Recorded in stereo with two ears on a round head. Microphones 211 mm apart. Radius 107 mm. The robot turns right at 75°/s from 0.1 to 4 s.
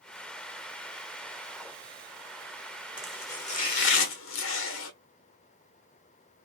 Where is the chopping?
5° right, 1.0 m; by 4.9 s 70° left, 1.0 m.